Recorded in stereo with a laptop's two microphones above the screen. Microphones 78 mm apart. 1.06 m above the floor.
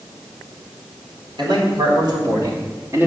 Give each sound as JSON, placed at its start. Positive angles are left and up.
{"t": 1.4, "sound": "a man speaking", "side_deg": -70, "distance_m": 4.0}